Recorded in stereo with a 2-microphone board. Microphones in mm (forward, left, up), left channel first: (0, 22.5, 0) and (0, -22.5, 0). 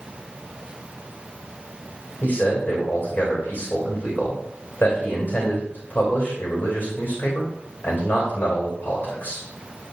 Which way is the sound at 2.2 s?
45° left (ahead or behind).